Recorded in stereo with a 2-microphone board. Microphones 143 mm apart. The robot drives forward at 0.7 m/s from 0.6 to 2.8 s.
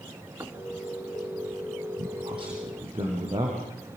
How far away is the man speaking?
About 5 m.